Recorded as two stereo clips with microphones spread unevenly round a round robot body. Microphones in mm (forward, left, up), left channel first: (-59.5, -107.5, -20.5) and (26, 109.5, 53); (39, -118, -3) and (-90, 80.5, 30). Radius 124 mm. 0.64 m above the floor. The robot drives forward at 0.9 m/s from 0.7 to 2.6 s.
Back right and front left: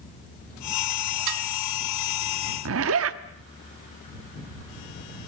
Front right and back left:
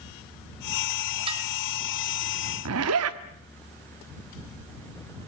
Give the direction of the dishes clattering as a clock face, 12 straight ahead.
10 o'clock.